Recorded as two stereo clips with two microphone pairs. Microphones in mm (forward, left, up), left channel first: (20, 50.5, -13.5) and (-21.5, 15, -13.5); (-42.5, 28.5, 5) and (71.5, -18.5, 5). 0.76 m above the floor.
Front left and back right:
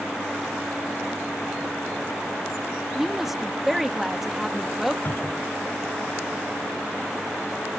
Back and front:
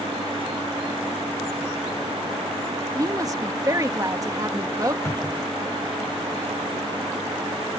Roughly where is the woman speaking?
Ahead right.